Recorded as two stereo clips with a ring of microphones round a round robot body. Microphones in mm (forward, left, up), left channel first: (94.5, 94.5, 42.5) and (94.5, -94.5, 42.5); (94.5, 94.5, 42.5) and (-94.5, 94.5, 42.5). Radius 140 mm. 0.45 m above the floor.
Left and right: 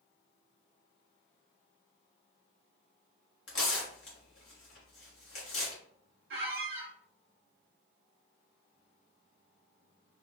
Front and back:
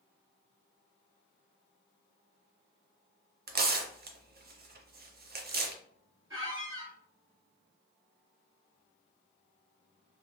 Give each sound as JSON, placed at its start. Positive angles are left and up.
{"t": 3.5, "sound": "tearing paper", "azimuth_deg": 140, "distance_m": 0.7}
{"t": 6.3, "sound": "a squeak", "azimuth_deg": -105, "distance_m": 0.7}